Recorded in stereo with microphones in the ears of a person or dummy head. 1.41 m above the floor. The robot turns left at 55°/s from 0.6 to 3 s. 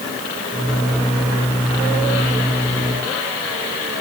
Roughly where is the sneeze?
I don't hear a sneeze.